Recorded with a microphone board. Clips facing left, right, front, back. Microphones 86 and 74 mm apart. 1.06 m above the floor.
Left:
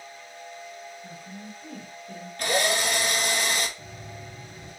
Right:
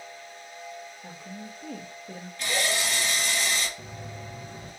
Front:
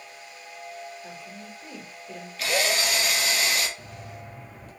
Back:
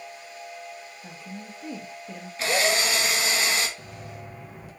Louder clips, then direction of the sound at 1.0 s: Even, back 1 dB; 110° right.